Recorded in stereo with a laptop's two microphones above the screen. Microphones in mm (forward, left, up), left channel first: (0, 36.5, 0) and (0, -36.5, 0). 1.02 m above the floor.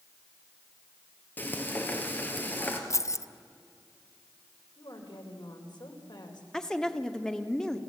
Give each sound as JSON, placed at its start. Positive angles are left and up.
{"t": 1.4, "sound": "frying", "side_deg": 25, "distance_m": 3.0}
{"t": 2.9, "sound": "keys jangling", "side_deg": 40, "distance_m": 0.7}
{"t": 4.8, "sound": "a woman speaking", "side_deg": 85, "distance_m": 3.5}
{"t": 6.5, "sound": "a woman speaking", "side_deg": 5, "distance_m": 1.7}